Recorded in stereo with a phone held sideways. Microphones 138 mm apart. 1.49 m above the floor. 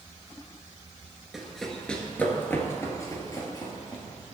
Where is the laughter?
No laughter in this recording.